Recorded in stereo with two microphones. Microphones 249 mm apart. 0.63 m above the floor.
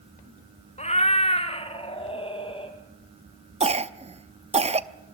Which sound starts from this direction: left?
A cat meowing, at 0.8 s.